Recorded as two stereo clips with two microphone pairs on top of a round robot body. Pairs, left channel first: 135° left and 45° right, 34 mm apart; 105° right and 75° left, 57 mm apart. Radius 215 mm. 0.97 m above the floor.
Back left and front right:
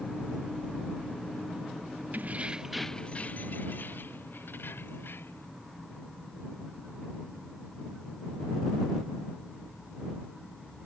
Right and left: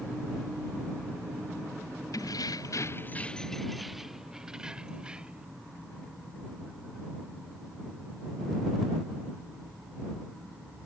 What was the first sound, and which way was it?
Keys jangling, 85° right.